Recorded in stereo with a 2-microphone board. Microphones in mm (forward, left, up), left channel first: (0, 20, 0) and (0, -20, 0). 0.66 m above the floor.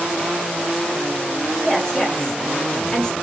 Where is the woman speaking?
20° left (ahead or behind), 3 m.